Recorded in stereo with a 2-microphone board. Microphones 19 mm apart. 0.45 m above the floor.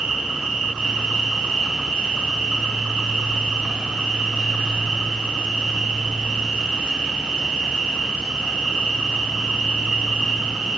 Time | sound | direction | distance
0.0 | an insect | 65° right (ahead or behind) | 2.5 m